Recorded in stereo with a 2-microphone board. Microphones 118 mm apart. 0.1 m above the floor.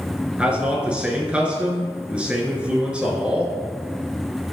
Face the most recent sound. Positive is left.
turn(degrees=-10)  # may be behind; listen again after turning